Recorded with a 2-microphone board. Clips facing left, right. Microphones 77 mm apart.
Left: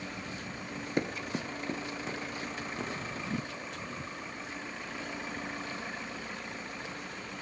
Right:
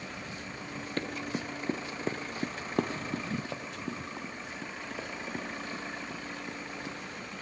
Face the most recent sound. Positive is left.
turn(degrees=-80)